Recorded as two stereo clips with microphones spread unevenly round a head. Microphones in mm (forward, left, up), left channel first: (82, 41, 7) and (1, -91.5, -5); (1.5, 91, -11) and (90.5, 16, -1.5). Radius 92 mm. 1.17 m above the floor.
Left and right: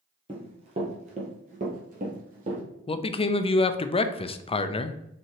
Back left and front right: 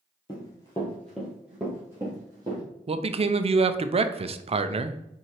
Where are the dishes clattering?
I don't hear dishes clattering.